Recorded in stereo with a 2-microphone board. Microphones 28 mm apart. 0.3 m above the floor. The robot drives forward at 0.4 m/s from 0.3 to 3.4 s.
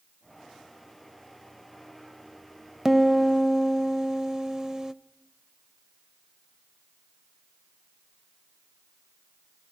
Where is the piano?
15° right (ahead or behind), 0.6 m; by 4.9 s 20° right (ahead or behind), 0.5 m.